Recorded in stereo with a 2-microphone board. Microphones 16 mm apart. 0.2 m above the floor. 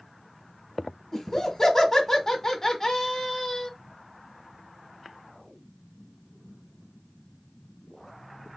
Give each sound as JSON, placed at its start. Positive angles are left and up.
{"t": 1.1, "sound": "laughter", "side_deg": 25, "distance_m": 1.2}